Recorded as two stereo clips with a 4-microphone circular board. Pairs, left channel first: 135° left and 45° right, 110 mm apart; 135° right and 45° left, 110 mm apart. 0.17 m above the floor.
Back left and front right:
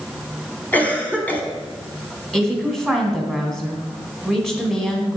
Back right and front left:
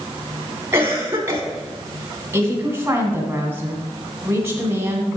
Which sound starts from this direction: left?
A cough, at 0.7 s.